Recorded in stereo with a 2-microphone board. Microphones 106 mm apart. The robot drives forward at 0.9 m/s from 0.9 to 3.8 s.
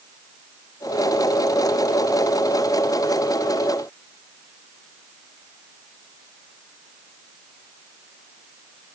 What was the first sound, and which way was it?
Only background noise.